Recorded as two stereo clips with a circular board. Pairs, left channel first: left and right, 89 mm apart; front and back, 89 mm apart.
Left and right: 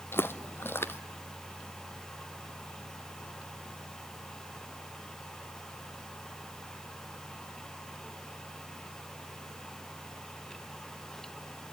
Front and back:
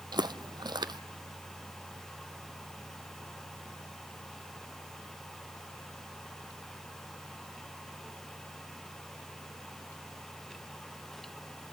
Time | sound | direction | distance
0.1 | footsteps | 150° left | 0.6 m